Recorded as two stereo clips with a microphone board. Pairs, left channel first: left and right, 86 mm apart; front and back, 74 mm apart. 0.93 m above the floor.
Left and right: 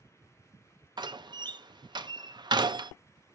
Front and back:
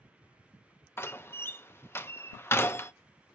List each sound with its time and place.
1.0 s a door slam: 60° right, 0.5 m